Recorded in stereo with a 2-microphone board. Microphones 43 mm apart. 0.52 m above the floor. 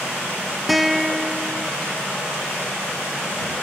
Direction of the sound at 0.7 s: Centre (ahead or behind).